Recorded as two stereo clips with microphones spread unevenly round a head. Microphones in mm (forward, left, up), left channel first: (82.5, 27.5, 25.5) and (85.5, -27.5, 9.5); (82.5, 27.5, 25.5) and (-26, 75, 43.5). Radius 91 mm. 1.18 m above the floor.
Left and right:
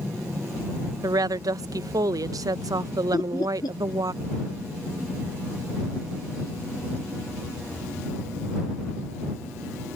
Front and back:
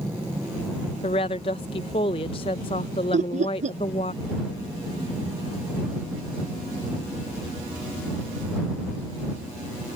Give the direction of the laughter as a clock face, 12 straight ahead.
8 o'clock.